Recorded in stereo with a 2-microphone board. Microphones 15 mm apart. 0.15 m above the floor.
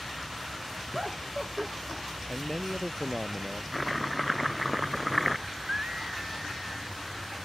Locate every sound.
0.9 s laughter: 25° right (ahead or behind)
2.3 s a man speaking: 40° left (ahead or behind)
3.7 s chopping: 5° left (ahead or behind)
5.5 s a scream: 50° right (ahead or behind)